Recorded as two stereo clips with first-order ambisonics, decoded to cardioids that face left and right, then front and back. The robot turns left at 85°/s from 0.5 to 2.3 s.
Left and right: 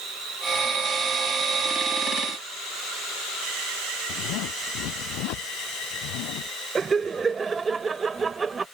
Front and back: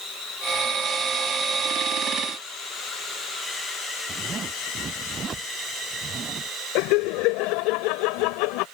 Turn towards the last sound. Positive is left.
turn(degrees=-15)